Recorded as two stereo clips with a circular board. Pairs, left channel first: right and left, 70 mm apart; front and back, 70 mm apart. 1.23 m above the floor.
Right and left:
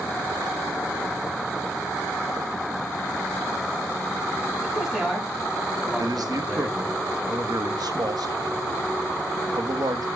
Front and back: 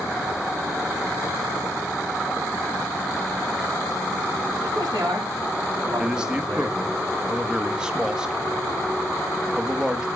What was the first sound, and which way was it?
A man speaking, 165° left.